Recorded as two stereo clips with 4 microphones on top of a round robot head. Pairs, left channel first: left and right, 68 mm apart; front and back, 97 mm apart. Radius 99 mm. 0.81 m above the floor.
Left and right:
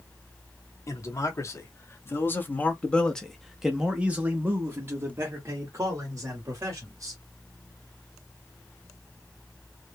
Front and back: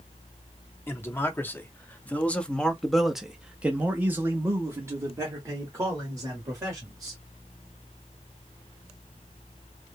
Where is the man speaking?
60° left, 1.6 m; by 7.2 s 130° right, 2.5 m.